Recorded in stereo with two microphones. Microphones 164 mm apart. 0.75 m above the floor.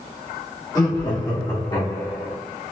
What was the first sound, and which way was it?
Laughter, 25° left (ahead or behind).